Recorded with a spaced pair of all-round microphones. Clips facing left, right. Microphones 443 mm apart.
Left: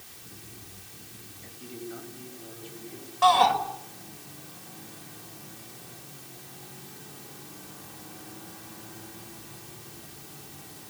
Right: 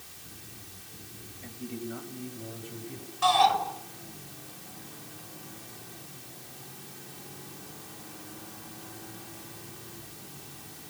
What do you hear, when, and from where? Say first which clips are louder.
1.4 s a man speaking: right 3 dB; 70° right (ahead or behind), 7 m; by 3.1 s 65° right (ahead or behind), 8 m
3.2 s a shout: left 3 dB; 75° left (ahead or behind), 5 m